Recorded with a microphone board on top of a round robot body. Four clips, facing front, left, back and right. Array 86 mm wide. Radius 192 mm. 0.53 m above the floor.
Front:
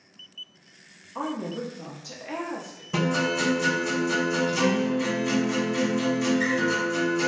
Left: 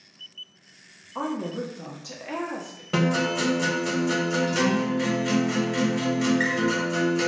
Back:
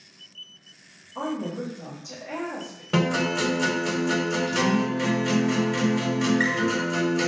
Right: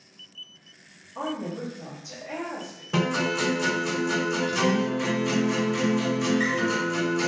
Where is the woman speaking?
60° left, 0.9 m.